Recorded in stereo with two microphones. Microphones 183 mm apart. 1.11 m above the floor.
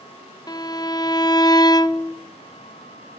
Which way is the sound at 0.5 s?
25° left (ahead or behind).